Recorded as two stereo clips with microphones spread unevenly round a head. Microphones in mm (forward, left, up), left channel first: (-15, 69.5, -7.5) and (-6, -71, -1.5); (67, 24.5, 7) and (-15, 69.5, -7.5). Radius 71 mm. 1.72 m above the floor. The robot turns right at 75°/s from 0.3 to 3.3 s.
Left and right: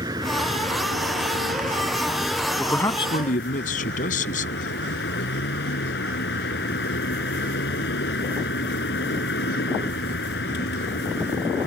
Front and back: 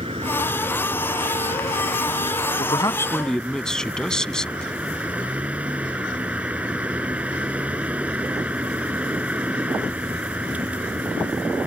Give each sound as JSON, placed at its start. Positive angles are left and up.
{"t": 0.0, "sound": "a vehicle", "azimuth_deg": -150}
{"t": 2.6, "sound": "a man speaking", "azimuth_deg": 0}